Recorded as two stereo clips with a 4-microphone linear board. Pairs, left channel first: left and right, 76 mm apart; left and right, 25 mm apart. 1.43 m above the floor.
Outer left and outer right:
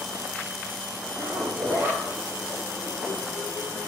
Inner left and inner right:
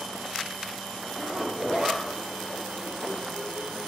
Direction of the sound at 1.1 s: 30° right (ahead or behind).